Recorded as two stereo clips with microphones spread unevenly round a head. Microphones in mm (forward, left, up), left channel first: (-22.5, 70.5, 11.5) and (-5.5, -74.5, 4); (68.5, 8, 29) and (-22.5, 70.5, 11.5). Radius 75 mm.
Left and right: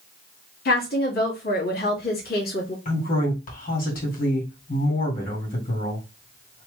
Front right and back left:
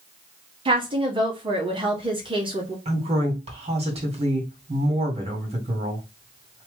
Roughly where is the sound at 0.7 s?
Left.